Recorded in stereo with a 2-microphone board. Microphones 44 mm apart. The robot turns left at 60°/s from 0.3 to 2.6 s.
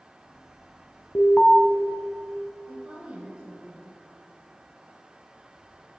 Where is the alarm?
30° left (ahead or behind), 0.7 m; by 1.6 s 35° left (ahead or behind), 0.7 m.